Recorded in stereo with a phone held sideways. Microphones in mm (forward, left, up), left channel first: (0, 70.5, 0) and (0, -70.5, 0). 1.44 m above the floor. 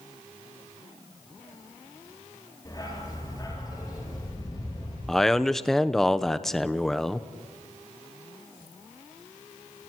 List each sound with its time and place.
2.6 s a dog barking: 25° left (ahead or behind), 9.5 m
5.1 s a man speaking: 5° left (ahead or behind), 0.9 m